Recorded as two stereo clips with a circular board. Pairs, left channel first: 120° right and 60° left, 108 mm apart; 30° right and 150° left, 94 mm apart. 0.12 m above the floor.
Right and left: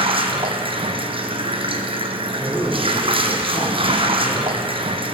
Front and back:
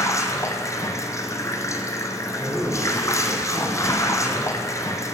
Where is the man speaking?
175° left, 1.3 m.